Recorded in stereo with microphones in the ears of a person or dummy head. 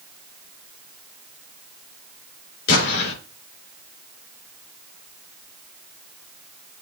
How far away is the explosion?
About 4 m.